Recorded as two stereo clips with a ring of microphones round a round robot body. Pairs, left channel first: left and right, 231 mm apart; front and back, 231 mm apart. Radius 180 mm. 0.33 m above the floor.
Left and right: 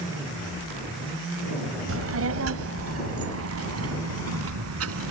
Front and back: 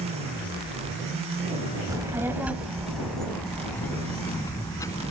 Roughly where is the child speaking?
Right.